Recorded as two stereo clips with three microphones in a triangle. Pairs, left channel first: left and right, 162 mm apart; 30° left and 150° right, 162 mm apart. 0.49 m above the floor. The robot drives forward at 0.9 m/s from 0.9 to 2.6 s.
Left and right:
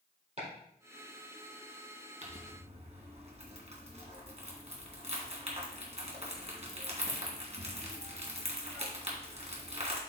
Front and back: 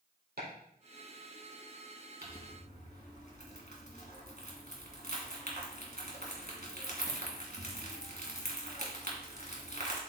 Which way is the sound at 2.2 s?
130° right.